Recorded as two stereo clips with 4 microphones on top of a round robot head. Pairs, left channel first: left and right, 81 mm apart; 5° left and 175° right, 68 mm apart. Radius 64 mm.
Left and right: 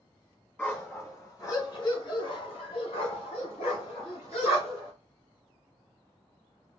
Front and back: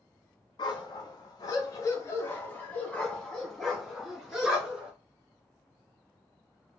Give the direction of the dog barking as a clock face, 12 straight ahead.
11 o'clock.